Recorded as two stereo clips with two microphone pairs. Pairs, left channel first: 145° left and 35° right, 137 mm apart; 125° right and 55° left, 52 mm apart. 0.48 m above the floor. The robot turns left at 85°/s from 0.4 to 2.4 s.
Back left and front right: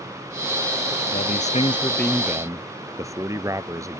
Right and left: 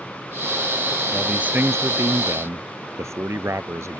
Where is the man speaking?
140° left; by 4.0 s 35° left.